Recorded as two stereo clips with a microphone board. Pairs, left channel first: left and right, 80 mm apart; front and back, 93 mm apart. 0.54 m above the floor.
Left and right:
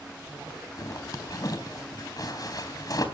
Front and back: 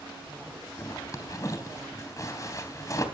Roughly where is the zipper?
Ahead left.